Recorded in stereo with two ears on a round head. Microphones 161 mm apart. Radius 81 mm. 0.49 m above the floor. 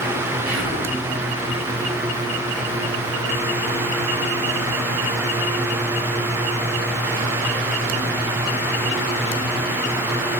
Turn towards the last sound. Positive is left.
turn(degrees=-70)  # may be behind; listen again after turning